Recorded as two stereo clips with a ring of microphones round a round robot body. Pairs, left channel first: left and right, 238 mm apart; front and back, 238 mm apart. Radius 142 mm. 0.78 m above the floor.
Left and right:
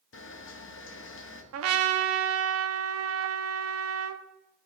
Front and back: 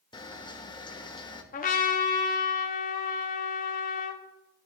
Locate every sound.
0.1 s a camera shutter: 70° left, 1.0 m
1.5 s a trumpet: 60° right, 0.7 m